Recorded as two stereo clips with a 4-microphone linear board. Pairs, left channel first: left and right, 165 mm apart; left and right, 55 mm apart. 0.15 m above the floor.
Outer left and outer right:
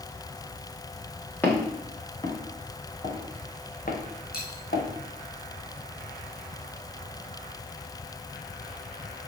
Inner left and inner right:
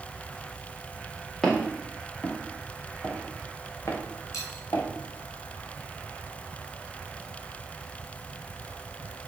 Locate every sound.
1.4 s footsteps: 10° left (ahead or behind), 4 m; by 4.9 s 80° left, 3 m
4.3 s a dropped coin: 70° left (ahead or behind), 3.5 m